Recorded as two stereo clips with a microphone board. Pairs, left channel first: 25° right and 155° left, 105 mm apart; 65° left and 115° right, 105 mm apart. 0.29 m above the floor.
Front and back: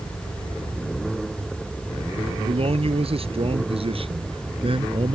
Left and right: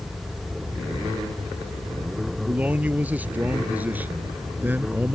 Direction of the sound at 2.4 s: 170° left.